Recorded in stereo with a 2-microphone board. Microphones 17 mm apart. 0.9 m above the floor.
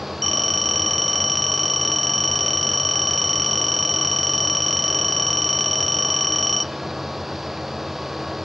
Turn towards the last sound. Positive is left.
turn(degrees=5)  # may be behind; listen again after turning